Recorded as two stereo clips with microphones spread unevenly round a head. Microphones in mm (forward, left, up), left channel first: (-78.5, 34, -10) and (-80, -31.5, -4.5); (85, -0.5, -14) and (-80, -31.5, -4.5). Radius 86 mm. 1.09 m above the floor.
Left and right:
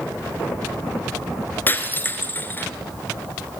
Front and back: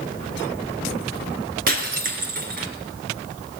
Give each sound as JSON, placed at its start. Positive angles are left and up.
{"t": 1.7, "sound": "breaking glass", "azimuth_deg": 150, "distance_m": 3.5}